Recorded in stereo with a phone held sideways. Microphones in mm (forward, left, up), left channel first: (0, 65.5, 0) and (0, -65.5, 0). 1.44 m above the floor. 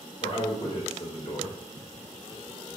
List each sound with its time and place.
0.2 s a man speaking: 45° left (ahead or behind), 3.5 m